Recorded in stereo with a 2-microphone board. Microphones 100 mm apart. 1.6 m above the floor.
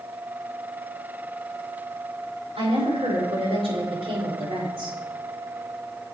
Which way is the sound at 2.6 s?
85° right.